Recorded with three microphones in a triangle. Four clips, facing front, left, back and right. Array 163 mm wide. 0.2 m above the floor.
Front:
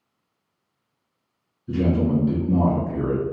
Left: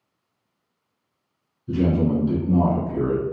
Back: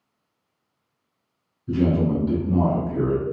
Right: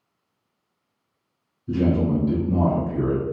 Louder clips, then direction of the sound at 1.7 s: Even, even; 170° right.